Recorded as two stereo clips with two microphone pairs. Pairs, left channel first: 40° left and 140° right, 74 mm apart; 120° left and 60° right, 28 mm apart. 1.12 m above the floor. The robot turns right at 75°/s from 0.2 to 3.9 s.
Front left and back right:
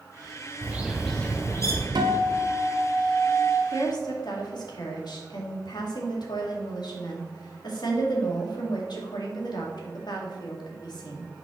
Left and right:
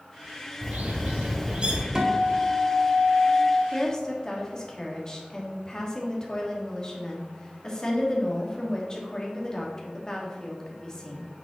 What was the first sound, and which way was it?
A bird, 85° right.